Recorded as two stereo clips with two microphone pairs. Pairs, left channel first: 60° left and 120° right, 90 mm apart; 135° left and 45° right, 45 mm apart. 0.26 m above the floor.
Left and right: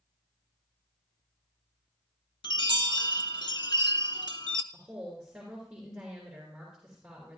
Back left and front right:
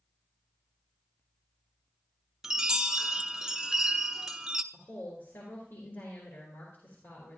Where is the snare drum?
I don't hear a snare drum.